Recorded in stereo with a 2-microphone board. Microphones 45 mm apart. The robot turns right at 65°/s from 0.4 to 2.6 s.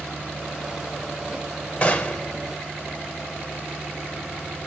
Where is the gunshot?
25° left (ahead or behind), 0.9 m; by 2.3 s 20° left (ahead or behind), 0.9 m.